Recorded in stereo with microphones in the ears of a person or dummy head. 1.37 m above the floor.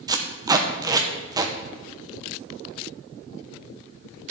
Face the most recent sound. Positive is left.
turn(degrees=-20)  # may be behind; listen again after turning